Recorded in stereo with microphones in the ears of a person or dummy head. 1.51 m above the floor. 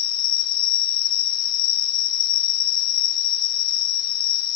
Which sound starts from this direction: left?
An insect, at 0.0 s.